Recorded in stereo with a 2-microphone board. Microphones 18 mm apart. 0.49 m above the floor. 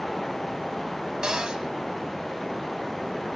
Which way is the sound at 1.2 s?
50° right (ahead or behind).